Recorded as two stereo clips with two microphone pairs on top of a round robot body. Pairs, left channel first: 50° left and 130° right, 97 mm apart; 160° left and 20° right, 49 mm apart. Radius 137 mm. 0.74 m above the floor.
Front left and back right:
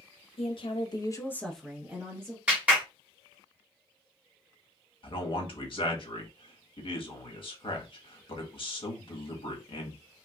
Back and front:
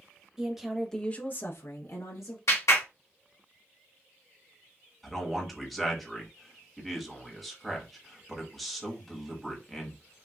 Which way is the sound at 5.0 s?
70° left.